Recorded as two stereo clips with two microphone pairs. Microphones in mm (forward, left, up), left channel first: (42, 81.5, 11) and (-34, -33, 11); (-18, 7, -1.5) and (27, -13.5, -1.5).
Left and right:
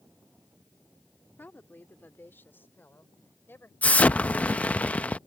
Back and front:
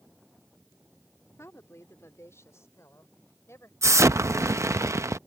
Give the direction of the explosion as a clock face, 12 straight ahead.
1 o'clock.